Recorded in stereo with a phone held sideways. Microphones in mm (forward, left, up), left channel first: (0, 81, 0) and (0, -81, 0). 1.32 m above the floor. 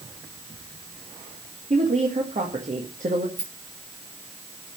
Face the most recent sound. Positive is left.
turn(degrees=-80)